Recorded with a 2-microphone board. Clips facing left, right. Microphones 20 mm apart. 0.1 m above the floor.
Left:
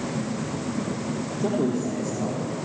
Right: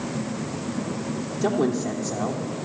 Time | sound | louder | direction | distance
1.4 | a woman speaking | right 2 dB | 35° right (ahead or behind) | 4 m